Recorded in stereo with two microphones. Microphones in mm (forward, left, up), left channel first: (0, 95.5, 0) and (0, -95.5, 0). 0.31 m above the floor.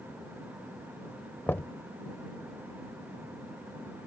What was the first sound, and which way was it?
Knocking, 10° left (ahead or behind).